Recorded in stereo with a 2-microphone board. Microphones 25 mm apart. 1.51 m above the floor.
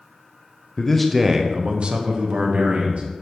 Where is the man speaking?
25° left (ahead or behind), 0.6 m; by 3.0 s 70° right (ahead or behind), 1.9 m.